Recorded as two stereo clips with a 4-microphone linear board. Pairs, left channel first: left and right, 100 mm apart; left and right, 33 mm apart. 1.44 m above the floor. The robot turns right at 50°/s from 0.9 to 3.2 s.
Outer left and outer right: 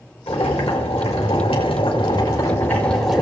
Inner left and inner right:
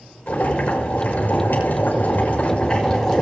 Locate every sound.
0.3 s boiling: 70° left, 5.5 m; by 3.2 s 175° right, 5.5 m